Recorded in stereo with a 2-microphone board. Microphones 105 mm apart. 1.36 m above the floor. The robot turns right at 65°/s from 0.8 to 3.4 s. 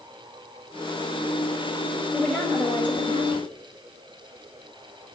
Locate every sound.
2.1 s a woman speaking: 5° right, 6.5 m; by 3.5 s 80° left, 6.5 m